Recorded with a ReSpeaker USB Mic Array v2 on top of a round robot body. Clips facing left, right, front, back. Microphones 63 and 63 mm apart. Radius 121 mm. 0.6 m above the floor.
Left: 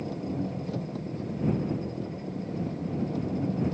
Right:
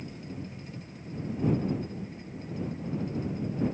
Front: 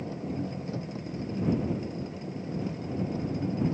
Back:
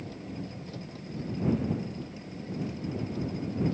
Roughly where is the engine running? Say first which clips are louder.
Left 8 dB, front 5 dB; ahead left.